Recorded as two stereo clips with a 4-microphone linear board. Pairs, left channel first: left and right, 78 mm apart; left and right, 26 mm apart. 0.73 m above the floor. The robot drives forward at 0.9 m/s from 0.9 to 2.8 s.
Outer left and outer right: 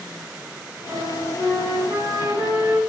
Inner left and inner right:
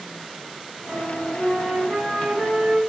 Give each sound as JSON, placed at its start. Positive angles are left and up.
{"t": 0.9, "sound": "a flute", "side_deg": -45, "distance_m": 4.5}